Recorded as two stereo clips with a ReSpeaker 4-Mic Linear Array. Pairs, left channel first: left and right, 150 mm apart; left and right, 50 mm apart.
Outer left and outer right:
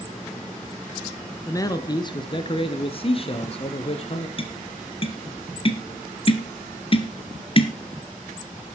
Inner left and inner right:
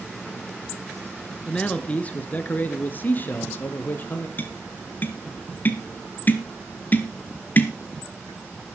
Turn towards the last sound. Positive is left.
turn(degrees=40)  # may be behind; listen again after turning